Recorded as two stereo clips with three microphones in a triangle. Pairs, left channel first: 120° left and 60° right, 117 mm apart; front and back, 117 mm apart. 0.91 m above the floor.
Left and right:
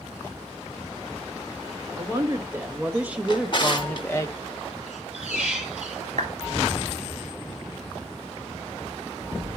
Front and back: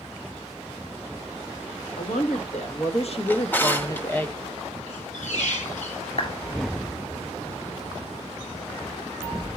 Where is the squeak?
20° left, 5 m.